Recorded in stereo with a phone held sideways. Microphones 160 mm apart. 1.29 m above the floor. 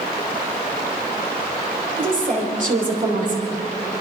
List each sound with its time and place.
2.0 s a woman speaking: 60° right (ahead or behind), 5 m